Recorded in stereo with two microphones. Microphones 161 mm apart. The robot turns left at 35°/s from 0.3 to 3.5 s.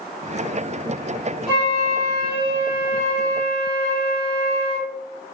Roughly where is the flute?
Left.